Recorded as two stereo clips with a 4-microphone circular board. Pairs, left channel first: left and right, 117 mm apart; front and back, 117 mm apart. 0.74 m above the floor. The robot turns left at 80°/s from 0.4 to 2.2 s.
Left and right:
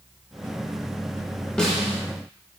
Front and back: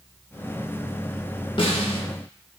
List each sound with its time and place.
1.6 s a snare drum: 10° left, 0.5 m; by 2.0 s 25° right, 0.5 m